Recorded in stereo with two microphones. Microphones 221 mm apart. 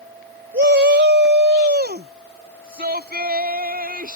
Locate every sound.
0.5 s a shout: 55° right (ahead or behind); by 4.2 s 40° right (ahead or behind)